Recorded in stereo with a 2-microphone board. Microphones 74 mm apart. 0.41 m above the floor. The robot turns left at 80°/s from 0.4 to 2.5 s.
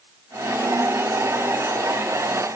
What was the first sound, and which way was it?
Only background noise.